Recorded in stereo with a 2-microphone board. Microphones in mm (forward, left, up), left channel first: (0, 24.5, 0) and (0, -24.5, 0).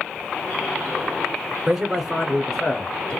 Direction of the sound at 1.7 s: 10° right (ahead or behind).